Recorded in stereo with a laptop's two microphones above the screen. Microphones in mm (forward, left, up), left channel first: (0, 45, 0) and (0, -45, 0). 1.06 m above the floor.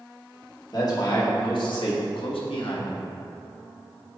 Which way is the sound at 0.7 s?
45° left (ahead or behind).